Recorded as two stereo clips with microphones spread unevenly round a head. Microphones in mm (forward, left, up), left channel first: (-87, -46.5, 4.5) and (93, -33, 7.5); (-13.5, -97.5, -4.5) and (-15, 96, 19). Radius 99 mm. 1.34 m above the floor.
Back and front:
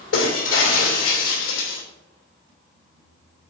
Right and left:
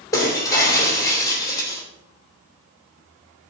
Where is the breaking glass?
165° right, 3 m.